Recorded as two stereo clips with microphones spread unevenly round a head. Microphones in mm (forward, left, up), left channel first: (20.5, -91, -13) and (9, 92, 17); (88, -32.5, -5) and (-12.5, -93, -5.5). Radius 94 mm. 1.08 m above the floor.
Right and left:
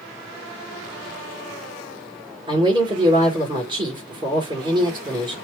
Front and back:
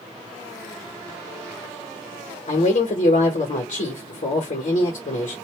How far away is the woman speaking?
About 1.2 m.